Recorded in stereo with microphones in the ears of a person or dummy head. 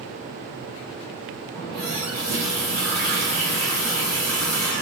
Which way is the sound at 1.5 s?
15° left (ahead or behind).